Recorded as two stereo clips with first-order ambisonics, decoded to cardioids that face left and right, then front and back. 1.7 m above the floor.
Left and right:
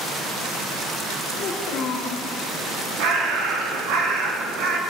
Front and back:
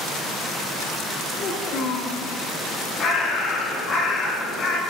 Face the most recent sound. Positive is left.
turn(degrees=-65)